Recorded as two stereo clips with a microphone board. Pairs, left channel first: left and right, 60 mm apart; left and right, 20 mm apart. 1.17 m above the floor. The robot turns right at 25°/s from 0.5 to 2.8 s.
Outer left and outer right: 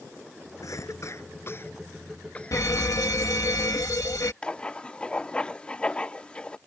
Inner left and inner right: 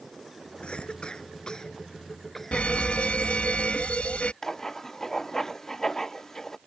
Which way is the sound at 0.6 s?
65° left (ahead or behind).